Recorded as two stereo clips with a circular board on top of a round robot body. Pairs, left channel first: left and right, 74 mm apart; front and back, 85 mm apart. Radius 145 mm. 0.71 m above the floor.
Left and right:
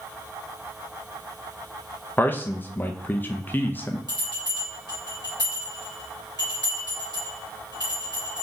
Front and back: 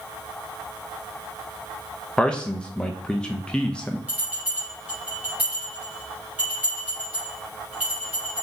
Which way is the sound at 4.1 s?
115° left.